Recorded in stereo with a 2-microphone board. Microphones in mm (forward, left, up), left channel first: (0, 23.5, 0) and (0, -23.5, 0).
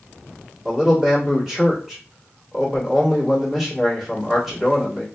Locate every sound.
0.7 s a man speaking: centre (ahead or behind), 1.6 m